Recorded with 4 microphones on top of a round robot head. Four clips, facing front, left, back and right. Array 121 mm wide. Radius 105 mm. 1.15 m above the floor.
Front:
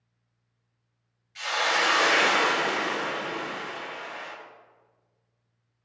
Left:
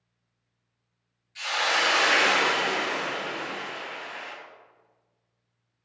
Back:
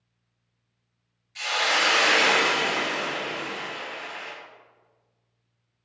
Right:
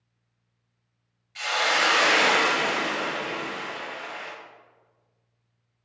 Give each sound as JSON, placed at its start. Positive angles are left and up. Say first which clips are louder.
{"t": 1.4, "sound": "a hiss", "louder": "right 2 dB, even", "azimuth_deg": -110, "distance_m": 0.7}